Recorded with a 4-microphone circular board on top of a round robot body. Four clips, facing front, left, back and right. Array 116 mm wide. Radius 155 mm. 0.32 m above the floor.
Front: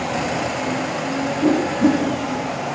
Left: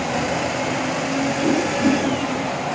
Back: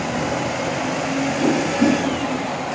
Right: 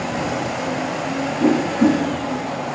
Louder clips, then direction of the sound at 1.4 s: Right 5 dB, front 2 dB; 115° right.